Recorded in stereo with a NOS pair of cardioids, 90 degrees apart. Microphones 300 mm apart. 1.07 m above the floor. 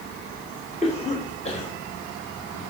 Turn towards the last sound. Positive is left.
turn(degrees=20)